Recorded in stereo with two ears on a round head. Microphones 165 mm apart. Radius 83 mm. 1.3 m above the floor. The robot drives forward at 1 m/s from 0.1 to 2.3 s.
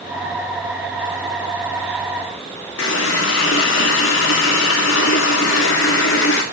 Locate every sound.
2.8 s a running tap: 75° left (ahead or behind), 2 m